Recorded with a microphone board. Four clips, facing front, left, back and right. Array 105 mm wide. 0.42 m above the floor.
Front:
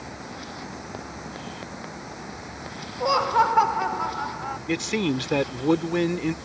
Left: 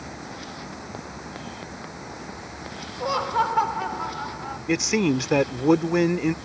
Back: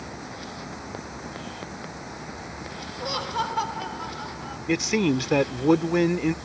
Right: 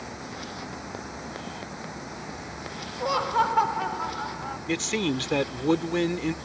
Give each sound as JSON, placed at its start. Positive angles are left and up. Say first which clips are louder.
{"t": 3.0, "sound": "laughter", "louder": "left 1 dB, front 9 dB", "azimuth_deg": 5}
{"t": 4.7, "sound": "a man speaking", "louder": "left 6 dB, back 3 dB", "azimuth_deg": 115}